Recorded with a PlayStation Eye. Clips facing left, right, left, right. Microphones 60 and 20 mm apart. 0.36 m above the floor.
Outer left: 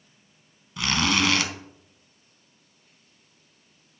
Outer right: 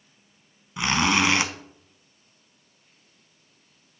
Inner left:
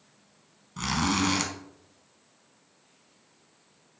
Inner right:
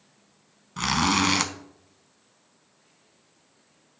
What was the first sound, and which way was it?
A zipper, 20° right (ahead or behind).